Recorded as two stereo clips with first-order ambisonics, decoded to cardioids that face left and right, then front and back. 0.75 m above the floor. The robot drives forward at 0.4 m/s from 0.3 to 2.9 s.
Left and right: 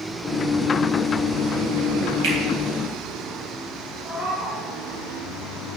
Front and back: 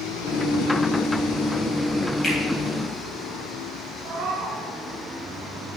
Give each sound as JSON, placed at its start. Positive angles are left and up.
{"t": 2.2, "sound": "a finger snap", "azimuth_deg": -75, "distance_m": 3.5}
{"t": 4.0, "sound": "a cat meowing", "azimuth_deg": -150, "distance_m": 2.5}